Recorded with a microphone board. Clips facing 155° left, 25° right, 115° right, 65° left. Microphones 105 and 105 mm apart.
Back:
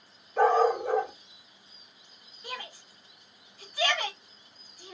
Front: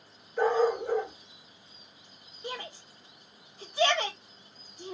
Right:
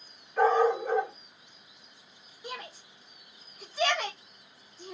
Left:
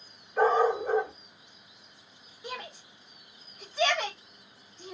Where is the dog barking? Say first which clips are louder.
Back 3 dB, even; 150° left, 1.3 m.